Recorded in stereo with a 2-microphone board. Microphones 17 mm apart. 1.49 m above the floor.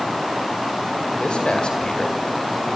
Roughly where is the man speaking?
Left.